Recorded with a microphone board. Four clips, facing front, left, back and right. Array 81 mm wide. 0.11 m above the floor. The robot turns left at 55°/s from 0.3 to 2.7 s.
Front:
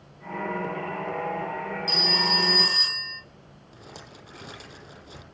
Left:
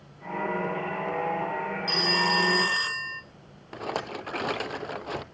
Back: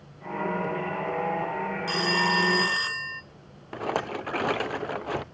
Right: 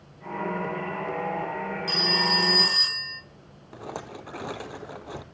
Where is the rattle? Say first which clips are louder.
Left 5 dB, back 18 dB; 160° left, 0.6 m.